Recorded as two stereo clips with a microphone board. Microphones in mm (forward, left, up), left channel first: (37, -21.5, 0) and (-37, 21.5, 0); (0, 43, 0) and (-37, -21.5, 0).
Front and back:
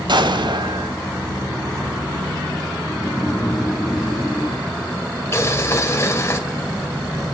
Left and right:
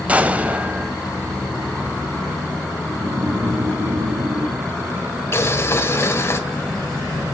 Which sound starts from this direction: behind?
An explosion, at 0.1 s.